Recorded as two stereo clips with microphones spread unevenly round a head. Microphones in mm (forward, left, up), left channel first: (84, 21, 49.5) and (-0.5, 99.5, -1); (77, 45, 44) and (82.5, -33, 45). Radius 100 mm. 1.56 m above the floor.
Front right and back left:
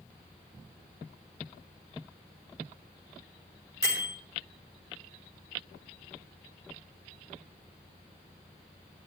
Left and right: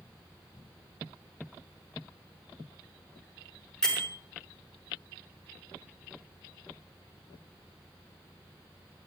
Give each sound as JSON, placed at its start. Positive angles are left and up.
{"t": 3.8, "sound": "a bell", "azimuth_deg": 10, "distance_m": 5.5}